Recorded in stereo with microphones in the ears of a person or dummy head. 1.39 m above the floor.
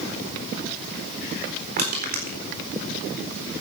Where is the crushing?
50° right (ahead or behind), 4 m.